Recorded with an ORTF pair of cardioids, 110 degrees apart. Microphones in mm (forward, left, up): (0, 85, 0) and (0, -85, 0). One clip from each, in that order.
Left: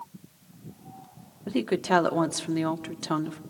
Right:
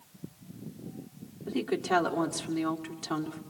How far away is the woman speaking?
About 1.7 m.